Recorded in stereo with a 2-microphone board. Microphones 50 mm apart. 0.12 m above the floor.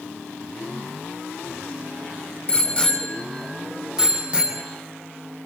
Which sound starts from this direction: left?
A bicycle bell, at 2.5 s.